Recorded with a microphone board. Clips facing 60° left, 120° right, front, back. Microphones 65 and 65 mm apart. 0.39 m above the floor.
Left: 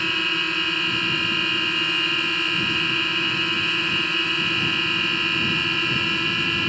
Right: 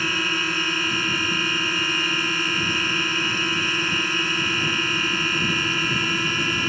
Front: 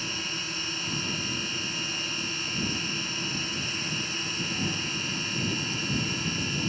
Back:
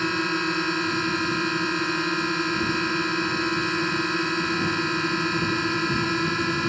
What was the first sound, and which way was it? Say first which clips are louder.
A drone: right 1 dB, back 11 dB; 155° left.